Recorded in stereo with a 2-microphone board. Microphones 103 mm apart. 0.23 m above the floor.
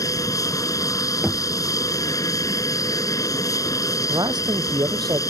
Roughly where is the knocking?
Centre.